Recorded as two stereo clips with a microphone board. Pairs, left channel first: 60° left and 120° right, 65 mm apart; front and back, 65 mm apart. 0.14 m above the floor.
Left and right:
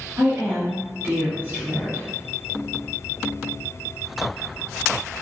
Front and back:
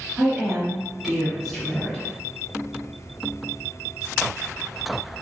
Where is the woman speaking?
125° right, 1.9 m; by 2.1 s 65° right, 1.8 m.